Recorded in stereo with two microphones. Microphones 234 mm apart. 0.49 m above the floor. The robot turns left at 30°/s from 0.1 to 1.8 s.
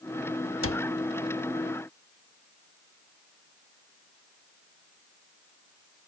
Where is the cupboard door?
75° left (ahead or behind).